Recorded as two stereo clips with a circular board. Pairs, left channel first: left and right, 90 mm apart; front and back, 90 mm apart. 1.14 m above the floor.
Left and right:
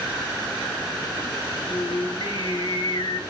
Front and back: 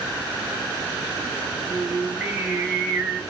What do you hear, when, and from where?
1.7 s singing: 105° left, 1.4 m